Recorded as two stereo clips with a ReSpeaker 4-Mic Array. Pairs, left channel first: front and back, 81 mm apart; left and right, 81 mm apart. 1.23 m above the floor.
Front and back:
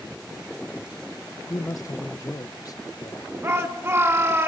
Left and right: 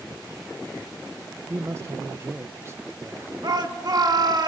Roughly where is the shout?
Behind right.